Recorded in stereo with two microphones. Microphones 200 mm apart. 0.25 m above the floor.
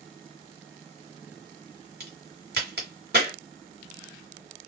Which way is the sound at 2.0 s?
55° right (ahead or behind).